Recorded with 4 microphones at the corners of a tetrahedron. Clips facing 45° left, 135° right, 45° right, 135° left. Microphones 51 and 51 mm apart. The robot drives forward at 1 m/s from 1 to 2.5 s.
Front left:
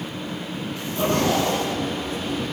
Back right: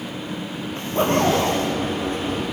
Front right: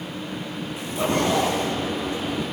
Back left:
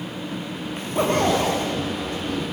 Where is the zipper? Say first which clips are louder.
Back right 3 dB, back left 2 dB; straight behind, 7.5 m.